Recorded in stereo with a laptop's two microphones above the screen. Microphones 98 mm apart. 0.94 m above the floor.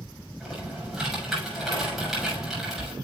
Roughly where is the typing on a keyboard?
Centre.